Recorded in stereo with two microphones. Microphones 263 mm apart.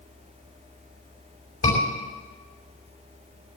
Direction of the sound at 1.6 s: 65° left (ahead or behind).